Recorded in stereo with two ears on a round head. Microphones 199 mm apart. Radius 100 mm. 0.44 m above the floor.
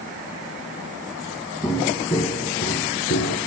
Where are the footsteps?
5° left (ahead or behind), 2.5 m; by 3.4 s 50° left (ahead or behind), 2.5 m.